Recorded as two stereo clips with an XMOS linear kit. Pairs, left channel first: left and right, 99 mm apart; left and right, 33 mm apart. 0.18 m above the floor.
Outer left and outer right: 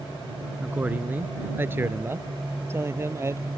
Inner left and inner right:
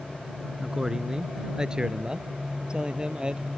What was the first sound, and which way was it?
A man speaking, 15° right (ahead or behind).